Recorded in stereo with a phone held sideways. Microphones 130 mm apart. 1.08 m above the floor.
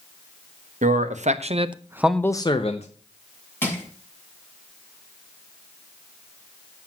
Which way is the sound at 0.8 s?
75° right (ahead or behind).